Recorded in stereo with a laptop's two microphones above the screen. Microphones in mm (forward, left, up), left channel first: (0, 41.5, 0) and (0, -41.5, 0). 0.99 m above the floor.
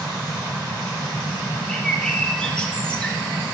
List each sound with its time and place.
1.7 s a bird: 10° left (ahead or behind), 1.1 m